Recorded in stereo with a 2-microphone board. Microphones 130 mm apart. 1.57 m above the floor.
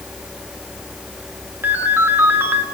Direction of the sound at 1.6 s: 15° right (ahead or behind).